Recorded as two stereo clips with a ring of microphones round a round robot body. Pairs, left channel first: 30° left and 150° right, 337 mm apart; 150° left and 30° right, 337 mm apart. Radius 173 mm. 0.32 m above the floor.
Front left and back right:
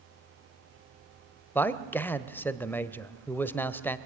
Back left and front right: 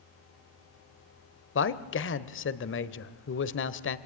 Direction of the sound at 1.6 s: 110° left.